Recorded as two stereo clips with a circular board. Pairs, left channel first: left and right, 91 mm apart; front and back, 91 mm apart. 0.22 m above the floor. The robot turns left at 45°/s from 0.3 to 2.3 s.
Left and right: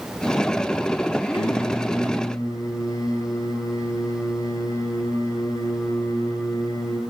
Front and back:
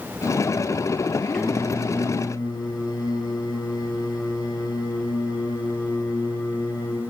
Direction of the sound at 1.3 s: 85° left.